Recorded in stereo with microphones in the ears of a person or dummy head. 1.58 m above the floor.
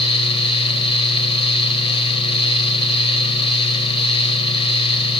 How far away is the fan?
About 1.1 m.